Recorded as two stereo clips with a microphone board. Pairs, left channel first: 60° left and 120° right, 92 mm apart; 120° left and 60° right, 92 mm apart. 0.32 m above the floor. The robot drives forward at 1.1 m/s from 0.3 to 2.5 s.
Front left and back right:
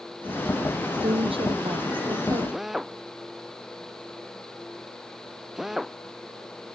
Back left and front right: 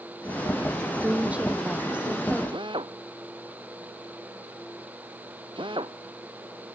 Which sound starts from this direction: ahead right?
A drill, at 2.5 s.